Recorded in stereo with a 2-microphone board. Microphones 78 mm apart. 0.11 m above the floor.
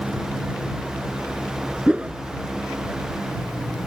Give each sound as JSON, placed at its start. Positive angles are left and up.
{"t": 1.9, "sound": "a whoosh", "side_deg": -15}